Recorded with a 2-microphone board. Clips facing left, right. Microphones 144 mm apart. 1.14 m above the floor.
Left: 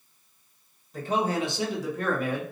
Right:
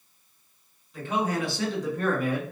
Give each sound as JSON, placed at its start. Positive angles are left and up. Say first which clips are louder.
{"t": 0.9, "sound": "a man speaking", "louder": "left 1 dB", "side_deg": 45, "distance_m": 0.9}